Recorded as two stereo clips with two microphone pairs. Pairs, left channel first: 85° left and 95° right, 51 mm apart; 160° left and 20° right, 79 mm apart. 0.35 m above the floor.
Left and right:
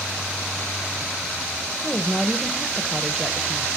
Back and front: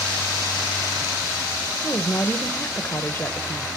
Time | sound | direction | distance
1.8 | a woman speaking | 170° right | 1.1 m